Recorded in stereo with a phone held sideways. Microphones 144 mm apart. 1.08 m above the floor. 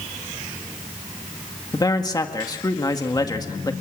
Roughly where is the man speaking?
Left.